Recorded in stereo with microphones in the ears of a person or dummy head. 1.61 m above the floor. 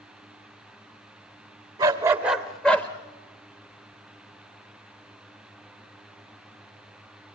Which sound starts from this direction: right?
A dog barking, at 1.8 s.